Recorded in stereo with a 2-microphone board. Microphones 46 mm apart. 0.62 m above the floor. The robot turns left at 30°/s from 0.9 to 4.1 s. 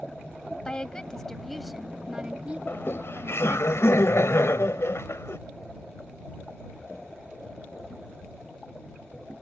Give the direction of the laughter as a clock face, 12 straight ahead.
8 o'clock.